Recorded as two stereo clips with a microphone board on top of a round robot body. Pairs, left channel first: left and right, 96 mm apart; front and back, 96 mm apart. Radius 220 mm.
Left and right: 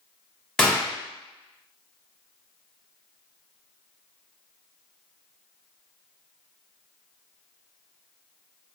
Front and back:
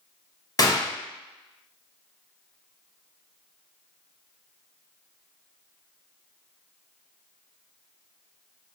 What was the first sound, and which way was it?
A gunshot, 5° left.